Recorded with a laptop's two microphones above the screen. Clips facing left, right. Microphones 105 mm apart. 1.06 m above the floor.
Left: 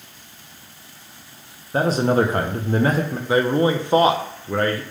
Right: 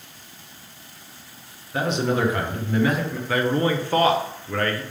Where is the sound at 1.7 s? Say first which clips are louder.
Left 5 dB; 35° left (ahead or behind), 0.7 m.